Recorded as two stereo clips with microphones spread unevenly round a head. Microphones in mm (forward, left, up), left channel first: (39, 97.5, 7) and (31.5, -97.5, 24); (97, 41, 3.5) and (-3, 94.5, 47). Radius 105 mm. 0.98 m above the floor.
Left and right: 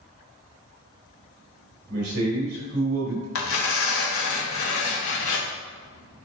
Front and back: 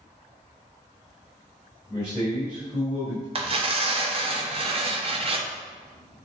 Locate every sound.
1.9 s a man speaking: 140° right, 3 m
3.4 s tearing paper: 110° left, 1.3 m